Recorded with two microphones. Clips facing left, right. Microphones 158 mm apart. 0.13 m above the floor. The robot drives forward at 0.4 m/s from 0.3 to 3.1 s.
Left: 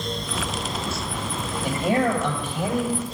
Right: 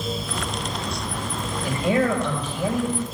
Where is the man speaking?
55° left (ahead or behind), 4 m; by 3.0 s 50° left (ahead or behind), 4.5 m.